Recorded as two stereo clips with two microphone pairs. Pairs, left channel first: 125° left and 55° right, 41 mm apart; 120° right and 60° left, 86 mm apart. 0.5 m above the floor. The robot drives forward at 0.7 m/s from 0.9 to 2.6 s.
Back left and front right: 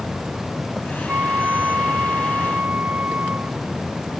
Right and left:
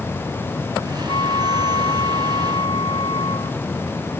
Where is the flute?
95° right; by 3.6 s 105° right.